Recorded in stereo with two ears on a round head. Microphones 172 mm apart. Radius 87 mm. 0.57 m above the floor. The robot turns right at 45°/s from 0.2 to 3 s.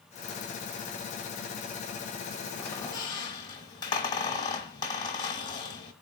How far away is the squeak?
About 1.1 m.